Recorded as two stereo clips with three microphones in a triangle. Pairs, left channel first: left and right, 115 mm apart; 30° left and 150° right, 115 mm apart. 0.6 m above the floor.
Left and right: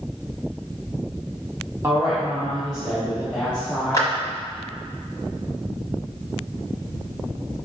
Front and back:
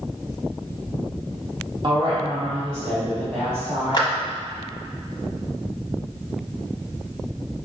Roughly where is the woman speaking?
Behind right.